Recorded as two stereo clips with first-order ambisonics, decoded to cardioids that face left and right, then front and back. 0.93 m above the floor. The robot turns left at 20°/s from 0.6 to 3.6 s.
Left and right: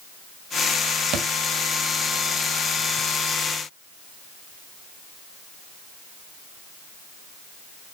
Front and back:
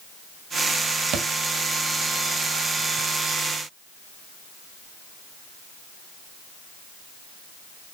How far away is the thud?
About 1.4 m.